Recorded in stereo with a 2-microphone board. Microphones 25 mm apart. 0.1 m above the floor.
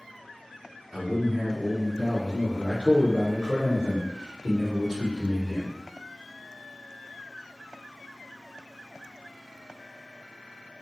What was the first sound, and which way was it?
A man speaking, 10° left (ahead or behind).